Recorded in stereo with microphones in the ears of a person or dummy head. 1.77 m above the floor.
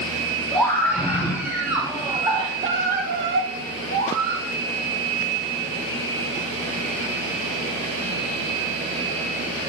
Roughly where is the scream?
Centre.